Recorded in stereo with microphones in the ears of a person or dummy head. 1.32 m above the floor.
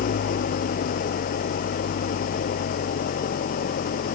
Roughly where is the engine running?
Left.